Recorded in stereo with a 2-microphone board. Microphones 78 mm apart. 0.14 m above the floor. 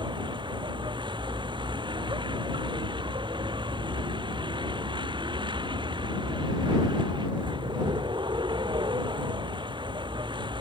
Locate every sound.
0.0 s a vehicle: 80° right